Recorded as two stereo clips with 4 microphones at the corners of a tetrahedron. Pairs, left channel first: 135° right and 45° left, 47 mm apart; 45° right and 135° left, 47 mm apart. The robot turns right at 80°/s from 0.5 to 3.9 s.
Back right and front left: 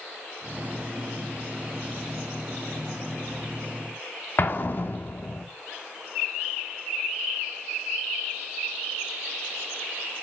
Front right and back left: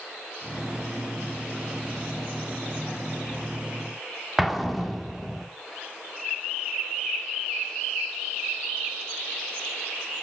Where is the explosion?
140° right, 1.6 m.